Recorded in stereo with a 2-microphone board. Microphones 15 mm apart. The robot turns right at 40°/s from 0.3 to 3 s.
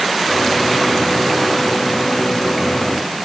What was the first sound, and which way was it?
Only background noise.